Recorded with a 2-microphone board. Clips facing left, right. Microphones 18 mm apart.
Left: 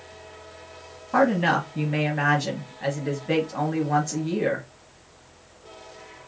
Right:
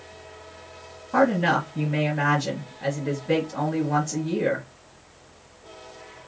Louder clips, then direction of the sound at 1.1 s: Even; 25° left (ahead or behind).